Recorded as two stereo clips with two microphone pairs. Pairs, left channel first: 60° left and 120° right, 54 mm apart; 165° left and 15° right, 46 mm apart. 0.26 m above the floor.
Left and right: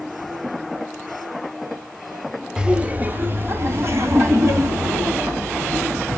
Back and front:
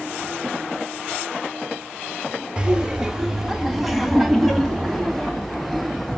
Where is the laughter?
60° right, 1.1 m; by 6.2 s 110° right, 4 m.